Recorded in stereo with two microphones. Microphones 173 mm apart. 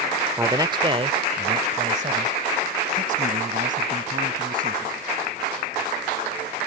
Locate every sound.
0.4 s a man speaking: 15° right (ahead or behind); by 5.0 s 55° right (ahead or behind)